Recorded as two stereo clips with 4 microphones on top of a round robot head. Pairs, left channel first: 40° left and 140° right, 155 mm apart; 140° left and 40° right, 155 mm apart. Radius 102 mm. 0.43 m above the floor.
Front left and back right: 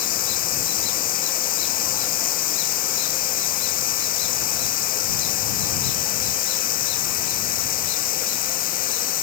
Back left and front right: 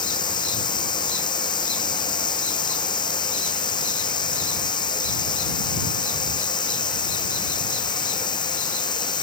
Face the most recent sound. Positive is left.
turn(degrees=75)